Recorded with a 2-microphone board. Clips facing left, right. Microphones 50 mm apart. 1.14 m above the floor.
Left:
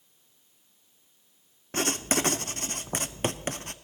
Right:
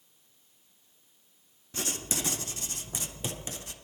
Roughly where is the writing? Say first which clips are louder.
Left 8 dB; left.